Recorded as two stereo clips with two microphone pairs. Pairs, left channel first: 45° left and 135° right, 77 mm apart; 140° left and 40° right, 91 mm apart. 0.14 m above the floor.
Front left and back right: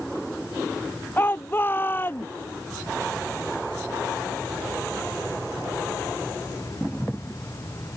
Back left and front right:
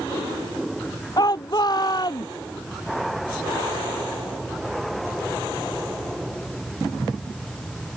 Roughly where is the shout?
Left.